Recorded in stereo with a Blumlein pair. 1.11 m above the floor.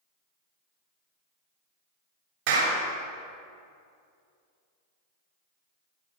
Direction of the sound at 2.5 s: 45° right.